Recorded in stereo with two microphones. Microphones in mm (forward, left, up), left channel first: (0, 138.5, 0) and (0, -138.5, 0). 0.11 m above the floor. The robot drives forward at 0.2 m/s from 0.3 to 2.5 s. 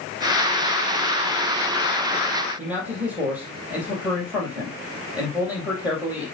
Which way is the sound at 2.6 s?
5° right (ahead or behind).